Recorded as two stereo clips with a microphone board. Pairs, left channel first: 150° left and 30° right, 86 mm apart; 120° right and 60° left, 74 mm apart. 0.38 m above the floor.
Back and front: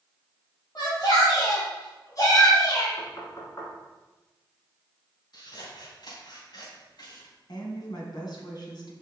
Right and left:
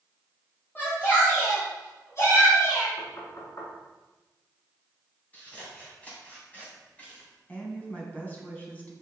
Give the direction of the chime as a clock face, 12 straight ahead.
I don't hear a chime.